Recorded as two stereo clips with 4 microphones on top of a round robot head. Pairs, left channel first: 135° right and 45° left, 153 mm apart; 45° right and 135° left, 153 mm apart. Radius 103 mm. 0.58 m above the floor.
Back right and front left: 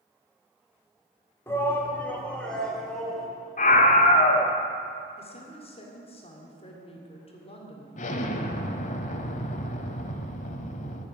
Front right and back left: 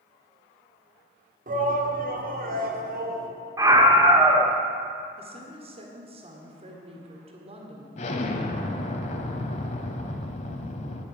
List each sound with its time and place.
1.5 s a shout: 155° left, 1.6 m; by 3.3 s 135° left, 2.5 m
3.6 s a scream: 160° right, 1.5 m
5.2 s a woman speaking: straight behind, 1.9 m
8.0 s an explosion: 95° right, 0.8 m